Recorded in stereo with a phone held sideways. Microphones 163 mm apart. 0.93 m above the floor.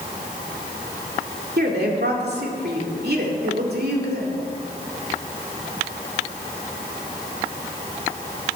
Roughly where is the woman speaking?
Right.